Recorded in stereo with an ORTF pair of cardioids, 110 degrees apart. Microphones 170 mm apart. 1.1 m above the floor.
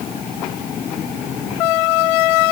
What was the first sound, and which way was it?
Only background noise.